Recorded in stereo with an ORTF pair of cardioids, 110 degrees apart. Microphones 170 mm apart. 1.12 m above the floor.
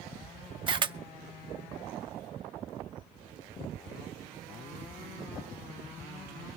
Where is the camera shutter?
30° right, 0.5 m.